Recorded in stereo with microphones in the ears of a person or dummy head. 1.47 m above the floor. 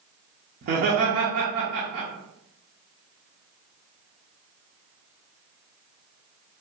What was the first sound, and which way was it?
Laughter, 55° right (ahead or behind).